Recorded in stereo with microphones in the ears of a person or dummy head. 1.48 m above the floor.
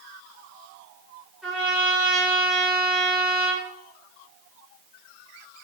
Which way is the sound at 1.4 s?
10° right (ahead or behind).